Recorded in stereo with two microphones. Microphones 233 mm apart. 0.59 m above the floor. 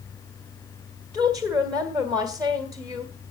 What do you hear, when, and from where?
1.1 s a woman speaking: 5° left (ahead or behind), 2 m